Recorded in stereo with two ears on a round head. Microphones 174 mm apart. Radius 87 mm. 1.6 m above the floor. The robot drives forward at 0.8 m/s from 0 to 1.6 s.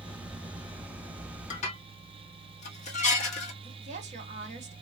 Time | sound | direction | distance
1.5 | dishes clattering | 40° left (ahead or behind) | 1.7 m
3.6 | a woman speaking | 35° right (ahead or behind) | 2 m